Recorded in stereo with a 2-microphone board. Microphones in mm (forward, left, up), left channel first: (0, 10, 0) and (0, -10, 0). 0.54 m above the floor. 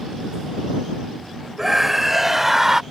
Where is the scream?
10° right (ahead or behind); by 2.8 s 20° right (ahead or behind).